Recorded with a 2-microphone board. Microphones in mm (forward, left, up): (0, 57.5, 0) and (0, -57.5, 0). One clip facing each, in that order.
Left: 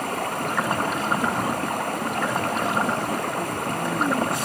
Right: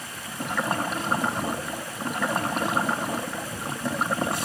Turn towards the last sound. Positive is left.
turn(degrees=60)  # may be behind; listen again after turning